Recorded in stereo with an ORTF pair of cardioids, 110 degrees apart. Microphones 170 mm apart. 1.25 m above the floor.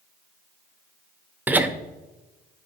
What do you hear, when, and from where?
1.5 s laughter: 10° right, 0.8 m